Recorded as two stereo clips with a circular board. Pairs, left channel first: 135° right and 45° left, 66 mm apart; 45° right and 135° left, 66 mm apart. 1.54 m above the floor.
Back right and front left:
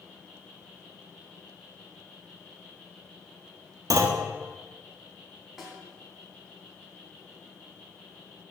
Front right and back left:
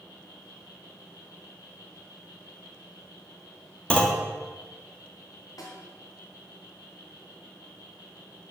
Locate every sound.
0.0 s an insect: 60° right, 4.5 m
3.9 s a clunk: 30° left, 1.5 m
5.6 s a snare drum: 40° right, 3 m